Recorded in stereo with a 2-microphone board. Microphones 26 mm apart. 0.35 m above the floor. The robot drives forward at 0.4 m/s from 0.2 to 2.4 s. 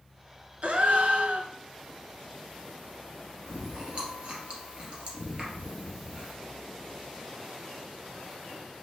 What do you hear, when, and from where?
0.6 s a gasp: 60° right (ahead or behind), 0.6 m; by 1.5 s 70° right (ahead or behind), 0.6 m
3.5 s chewing: 40° right (ahead or behind), 1.7 m